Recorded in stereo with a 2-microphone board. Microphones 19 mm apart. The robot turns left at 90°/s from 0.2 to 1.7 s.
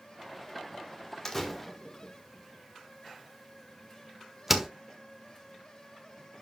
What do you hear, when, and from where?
1.2 s a door slam: 25° left (ahead or behind), 1.4 m; by 4.7 s 10° right (ahead or behind), 1.4 m